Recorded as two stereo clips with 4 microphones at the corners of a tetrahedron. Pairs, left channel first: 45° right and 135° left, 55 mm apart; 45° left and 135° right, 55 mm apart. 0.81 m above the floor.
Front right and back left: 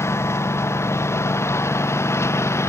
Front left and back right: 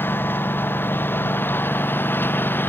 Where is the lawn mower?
5° right.